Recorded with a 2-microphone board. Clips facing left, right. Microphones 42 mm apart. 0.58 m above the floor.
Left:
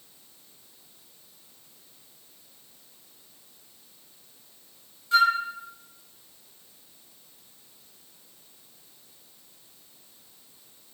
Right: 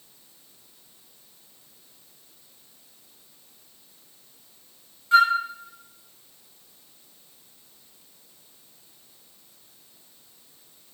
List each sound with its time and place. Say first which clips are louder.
5.1 s a flute: right 3 dB; 40° right (ahead or behind), 1.9 m